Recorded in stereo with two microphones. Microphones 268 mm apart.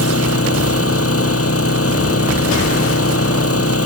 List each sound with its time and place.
0.0 s an engine running: 60° left (ahead or behind)